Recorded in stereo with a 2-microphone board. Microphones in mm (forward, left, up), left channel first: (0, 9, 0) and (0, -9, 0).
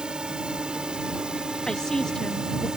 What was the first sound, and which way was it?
A drone, 65° right (ahead or behind).